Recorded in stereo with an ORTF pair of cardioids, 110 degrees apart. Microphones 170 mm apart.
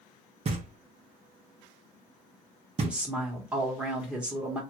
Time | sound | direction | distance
0.5 | knocking | 35° right | 1.1 m
2.8 | a woman speaking | 5° right | 1.5 m